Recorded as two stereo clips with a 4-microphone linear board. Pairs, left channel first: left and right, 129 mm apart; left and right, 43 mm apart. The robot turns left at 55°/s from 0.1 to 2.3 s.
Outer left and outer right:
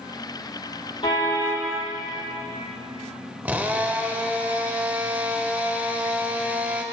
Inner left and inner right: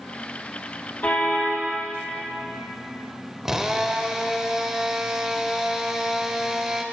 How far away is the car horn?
About 6 m.